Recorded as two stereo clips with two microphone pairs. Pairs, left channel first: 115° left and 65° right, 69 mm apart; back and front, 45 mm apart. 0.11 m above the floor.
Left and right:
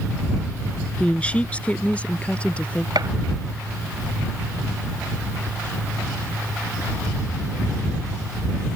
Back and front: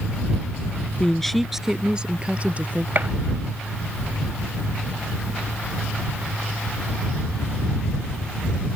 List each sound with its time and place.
1.0 s a woman speaking: 140° left; by 2.9 s 45° left
3.0 s a gunshot: 50° right